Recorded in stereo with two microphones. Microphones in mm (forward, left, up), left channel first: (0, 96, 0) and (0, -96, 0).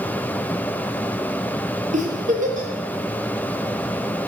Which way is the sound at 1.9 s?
40° right (ahead or behind).